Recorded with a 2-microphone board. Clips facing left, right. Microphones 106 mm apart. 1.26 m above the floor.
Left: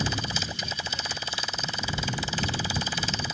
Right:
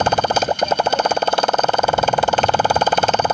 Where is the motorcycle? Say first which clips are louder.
Right 16 dB; 65° right (ahead or behind).